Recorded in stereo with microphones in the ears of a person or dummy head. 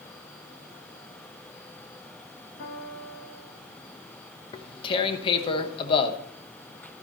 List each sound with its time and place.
2.6 s a piano: 60° left (ahead or behind), 3 m
4.5 s tearing paper: 30° left (ahead or behind), 1.0 m